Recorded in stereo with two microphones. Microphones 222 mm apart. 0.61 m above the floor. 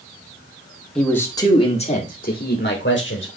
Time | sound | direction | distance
0.9 | a man speaking | 5° left (ahead or behind) | 1.8 m